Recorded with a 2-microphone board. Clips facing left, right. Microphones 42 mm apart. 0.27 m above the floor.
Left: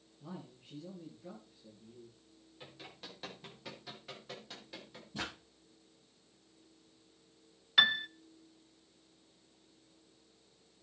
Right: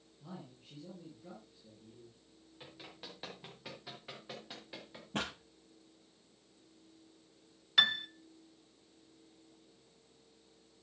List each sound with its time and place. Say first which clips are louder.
0.2 s a man speaking: left 2 dB; 5° left (ahead or behind), 5.5 m
2.6 s running footsteps: even; 5° right (ahead or behind), 7 m; by 5.0 s 15° right (ahead or behind), 4.5 m
5.1 s a pop: right 3 dB; 70° right (ahead or behind), 7.5 m
7.8 s a piano: left 2 dB; 10° left (ahead or behind), 0.5 m